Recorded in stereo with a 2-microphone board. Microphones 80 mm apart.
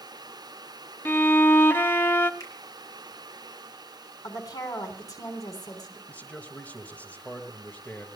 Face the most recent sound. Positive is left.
turn(degrees=15)  # may be behind; listen again after turning